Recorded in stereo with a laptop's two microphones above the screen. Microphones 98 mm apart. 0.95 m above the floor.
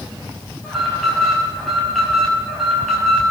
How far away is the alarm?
About 5.5 m.